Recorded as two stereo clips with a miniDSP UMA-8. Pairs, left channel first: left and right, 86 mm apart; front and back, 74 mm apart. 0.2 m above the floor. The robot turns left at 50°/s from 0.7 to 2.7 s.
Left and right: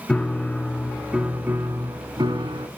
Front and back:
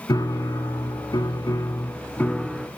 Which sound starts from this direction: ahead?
A piano, at 0.1 s.